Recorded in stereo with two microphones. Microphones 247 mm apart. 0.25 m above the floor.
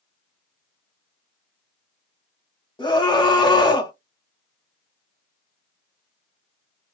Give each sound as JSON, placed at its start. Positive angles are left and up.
{"t": 2.8, "sound": "a scream", "side_deg": 20, "distance_m": 1.6}